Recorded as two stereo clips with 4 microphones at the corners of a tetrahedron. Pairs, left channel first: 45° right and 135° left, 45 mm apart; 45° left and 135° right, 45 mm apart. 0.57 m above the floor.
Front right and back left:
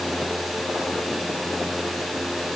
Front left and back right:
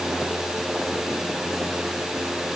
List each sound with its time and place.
Only background noise.